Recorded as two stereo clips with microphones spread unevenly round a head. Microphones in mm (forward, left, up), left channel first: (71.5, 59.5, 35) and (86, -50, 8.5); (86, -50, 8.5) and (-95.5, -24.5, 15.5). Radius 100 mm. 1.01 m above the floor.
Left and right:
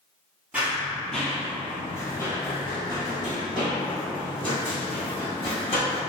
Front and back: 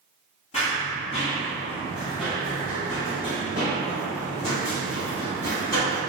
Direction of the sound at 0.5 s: 10° left.